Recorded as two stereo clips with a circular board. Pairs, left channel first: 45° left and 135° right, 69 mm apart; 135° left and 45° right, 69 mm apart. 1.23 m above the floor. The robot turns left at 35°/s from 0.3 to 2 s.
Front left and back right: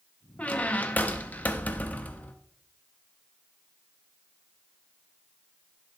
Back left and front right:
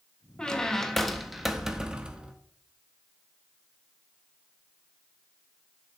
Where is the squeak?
80° left, 0.6 m; by 2.4 s 20° left, 0.6 m.